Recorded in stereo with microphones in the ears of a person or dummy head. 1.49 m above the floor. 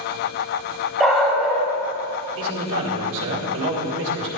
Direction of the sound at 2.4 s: 75° right (ahead or behind).